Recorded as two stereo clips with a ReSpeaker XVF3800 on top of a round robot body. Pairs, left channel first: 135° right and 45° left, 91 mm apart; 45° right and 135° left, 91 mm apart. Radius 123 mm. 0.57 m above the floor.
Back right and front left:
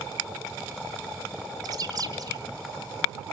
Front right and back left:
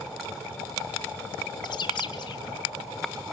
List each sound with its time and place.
1.6 s a bird: 5° right, 1.3 m